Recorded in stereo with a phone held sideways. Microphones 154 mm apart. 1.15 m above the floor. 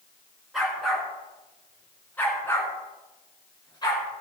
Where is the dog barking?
Centre (ahead or behind), 5 m; by 4.1 s 30° left (ahead or behind), 5 m.